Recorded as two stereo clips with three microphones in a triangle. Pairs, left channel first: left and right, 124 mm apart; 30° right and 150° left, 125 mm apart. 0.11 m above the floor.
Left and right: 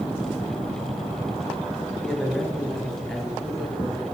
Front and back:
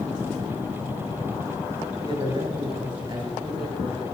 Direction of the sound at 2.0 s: 175° left.